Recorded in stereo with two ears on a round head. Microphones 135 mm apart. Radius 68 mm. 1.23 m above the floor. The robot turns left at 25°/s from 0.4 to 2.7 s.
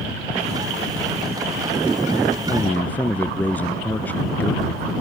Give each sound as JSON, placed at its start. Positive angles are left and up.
{"t": 2.5, "sound": "a man speaking", "side_deg": 15}